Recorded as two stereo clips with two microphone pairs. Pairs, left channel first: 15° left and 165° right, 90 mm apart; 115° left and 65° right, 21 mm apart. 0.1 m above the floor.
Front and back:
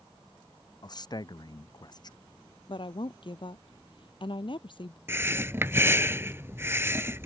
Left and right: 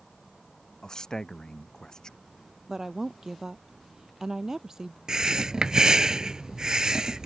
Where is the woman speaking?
Straight ahead.